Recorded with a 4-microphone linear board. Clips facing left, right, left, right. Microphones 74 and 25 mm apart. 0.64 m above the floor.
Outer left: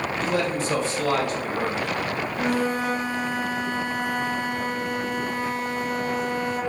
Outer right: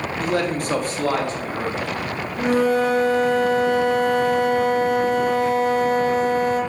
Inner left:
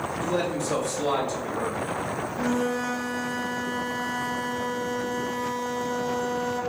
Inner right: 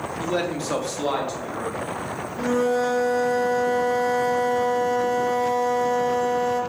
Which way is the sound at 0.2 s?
45° right (ahead or behind).